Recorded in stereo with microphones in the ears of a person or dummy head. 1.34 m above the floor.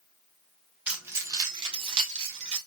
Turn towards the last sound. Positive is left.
turn(degrees=-40)  # may be behind; listen again after turning